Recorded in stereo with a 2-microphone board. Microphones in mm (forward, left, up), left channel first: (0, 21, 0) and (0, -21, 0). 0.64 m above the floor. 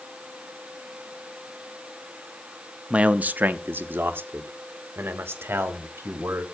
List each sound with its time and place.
2.9 s a man speaking: 30° right (ahead or behind), 0.6 m; by 6.5 s 70° right (ahead or behind), 2.5 m